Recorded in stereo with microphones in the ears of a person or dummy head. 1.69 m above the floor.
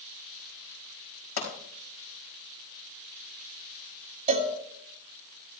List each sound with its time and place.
1.4 s a pop: 55° left (ahead or behind), 4.5 m
4.3 s a cowbell: 35° right (ahead or behind), 1.2 m